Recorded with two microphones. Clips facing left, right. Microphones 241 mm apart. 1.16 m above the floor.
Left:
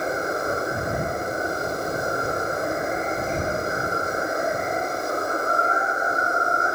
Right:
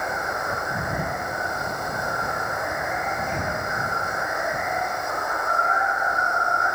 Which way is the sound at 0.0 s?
35° left (ahead or behind).